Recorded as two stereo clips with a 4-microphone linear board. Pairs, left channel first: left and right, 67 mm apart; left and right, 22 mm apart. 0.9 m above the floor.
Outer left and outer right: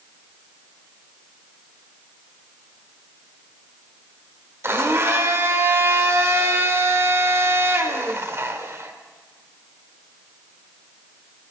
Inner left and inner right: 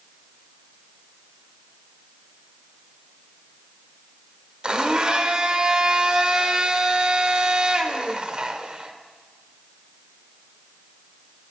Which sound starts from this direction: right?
A blender, at 4.6 s.